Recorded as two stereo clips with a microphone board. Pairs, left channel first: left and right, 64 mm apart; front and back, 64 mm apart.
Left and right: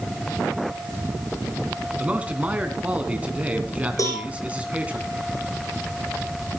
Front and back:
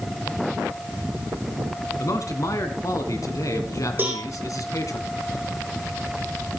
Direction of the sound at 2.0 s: 25° right.